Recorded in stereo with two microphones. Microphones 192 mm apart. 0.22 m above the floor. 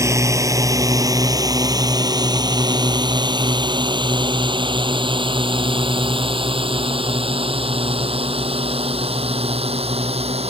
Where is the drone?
15° right (ahead or behind); by 10.5 s 30° right (ahead or behind).